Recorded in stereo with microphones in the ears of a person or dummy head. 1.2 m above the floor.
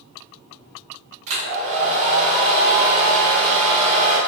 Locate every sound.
1.3 s a hair dryer: 75° right (ahead or behind), 1.2 m